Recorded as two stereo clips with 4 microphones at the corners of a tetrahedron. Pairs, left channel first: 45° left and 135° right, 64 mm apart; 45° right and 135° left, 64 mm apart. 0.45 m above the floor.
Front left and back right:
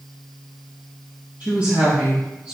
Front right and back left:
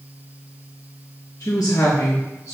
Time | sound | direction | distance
1.4 | a woman speaking | 75° right | 5 m